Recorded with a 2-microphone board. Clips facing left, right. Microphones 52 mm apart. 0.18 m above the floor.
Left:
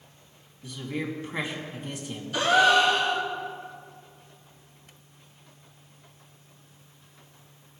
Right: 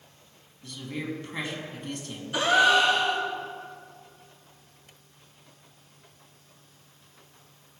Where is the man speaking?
15° left (ahead or behind), 1.8 m.